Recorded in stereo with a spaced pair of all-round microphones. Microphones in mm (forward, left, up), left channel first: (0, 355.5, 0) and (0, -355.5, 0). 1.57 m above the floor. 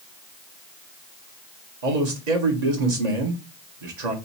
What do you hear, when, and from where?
1.8 s a man speaking: 75° right (ahead or behind), 1.4 m